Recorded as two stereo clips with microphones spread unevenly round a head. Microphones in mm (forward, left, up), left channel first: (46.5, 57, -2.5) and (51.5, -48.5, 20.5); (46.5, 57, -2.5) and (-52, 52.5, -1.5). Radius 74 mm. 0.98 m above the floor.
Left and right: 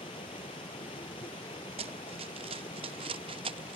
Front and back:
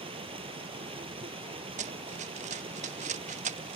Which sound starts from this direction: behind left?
Running water, at 0.0 s.